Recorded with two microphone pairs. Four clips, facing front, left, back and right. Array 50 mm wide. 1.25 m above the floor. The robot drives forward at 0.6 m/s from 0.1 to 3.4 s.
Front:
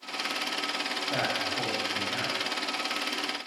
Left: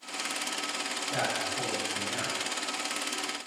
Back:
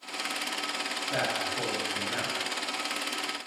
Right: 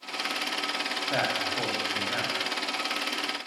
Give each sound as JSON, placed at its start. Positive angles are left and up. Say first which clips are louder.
{"t": 1.1, "sound": "a man speaking", "louder": "right 3 dB, even", "azimuth_deg": -90, "distance_m": 1.7}